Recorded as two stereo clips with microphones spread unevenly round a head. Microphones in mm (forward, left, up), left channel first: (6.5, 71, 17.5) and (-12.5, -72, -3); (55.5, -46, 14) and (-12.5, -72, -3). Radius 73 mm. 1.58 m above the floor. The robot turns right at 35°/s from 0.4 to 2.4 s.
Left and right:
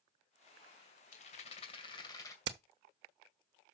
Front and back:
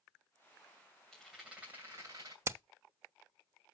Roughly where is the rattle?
Left.